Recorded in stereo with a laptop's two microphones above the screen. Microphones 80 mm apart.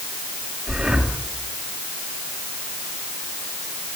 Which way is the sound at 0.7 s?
10° right (ahead or behind).